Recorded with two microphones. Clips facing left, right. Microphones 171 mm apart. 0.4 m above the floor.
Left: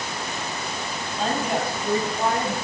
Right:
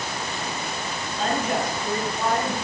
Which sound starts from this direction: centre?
A woman speaking, at 1.2 s.